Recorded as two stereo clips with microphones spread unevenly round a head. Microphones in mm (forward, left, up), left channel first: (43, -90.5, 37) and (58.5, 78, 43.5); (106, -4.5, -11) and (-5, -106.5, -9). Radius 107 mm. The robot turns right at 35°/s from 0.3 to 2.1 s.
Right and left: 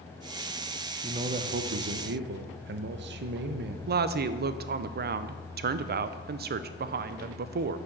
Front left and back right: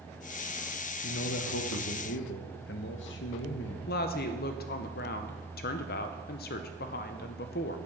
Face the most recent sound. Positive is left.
turn(degrees=60)